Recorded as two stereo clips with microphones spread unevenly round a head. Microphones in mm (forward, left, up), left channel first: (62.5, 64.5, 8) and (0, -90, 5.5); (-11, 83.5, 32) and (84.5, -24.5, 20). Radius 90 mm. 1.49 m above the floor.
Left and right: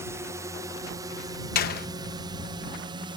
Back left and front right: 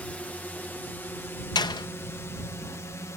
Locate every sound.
0.0 s a drone: 155° right; by 3.2 s 160° right
1.6 s a door slam: 80° left